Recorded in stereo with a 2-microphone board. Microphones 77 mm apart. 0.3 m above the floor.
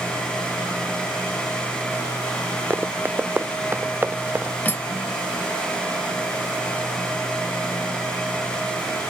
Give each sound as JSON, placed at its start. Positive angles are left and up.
{"t": 2.7, "sound": "running footsteps", "side_deg": -25}
{"t": 4.7, "sound": "cutlery clinking", "side_deg": 25}